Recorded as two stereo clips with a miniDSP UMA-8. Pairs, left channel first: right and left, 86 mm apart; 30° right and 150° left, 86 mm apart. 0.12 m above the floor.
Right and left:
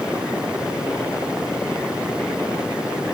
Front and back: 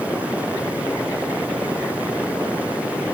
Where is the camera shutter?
I don't hear a camera shutter.